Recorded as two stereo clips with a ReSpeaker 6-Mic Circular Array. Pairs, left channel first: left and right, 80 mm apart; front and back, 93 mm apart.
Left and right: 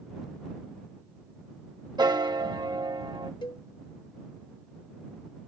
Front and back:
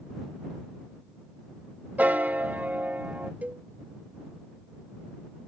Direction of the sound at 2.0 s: 110° right.